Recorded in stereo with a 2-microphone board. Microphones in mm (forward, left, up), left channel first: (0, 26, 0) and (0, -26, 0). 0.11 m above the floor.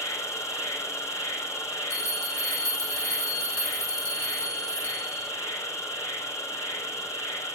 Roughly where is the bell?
Left.